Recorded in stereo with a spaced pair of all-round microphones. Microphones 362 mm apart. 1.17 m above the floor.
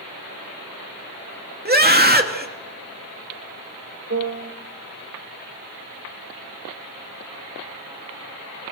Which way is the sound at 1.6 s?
25° right (ahead or behind).